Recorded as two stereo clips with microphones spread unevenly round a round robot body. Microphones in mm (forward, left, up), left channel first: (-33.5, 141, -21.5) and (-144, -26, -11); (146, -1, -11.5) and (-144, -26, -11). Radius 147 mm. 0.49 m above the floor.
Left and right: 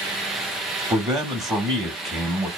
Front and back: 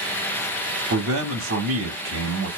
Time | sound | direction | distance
0.9 | a man speaking | 170° left | 1.0 m